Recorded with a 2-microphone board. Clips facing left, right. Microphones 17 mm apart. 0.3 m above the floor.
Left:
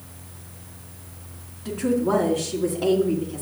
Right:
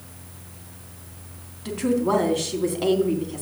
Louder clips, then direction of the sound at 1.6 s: Even; 55° right (ahead or behind).